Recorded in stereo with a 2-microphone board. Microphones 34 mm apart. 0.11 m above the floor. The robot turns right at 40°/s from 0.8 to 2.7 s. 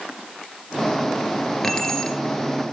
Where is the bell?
I don't hear a bell.